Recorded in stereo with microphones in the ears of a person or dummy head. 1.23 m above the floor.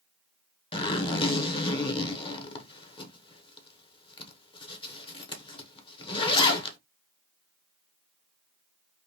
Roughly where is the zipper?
Left.